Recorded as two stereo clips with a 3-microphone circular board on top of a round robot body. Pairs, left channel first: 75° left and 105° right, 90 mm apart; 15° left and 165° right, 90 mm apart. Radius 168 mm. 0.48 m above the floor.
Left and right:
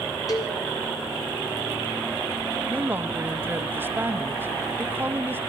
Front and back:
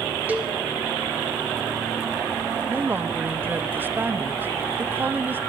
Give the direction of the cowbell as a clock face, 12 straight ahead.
8 o'clock.